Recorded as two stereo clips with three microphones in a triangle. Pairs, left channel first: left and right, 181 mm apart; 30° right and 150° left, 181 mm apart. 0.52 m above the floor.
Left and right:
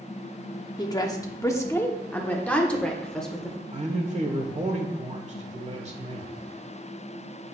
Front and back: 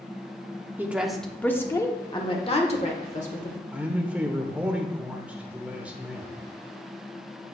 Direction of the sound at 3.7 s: 130° right.